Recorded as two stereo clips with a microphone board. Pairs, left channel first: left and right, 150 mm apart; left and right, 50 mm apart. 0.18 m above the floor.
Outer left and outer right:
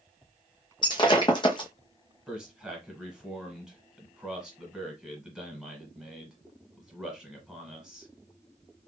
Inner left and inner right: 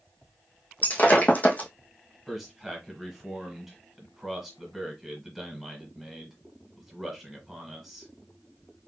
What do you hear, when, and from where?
0.8 s breaking glass: 30° left (ahead or behind), 0.8 m
2.3 s a man speaking: 5° right (ahead or behind), 1.3 m